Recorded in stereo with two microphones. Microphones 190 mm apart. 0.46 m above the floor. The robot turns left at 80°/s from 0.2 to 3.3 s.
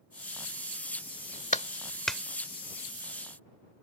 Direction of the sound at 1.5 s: 40° left (ahead or behind).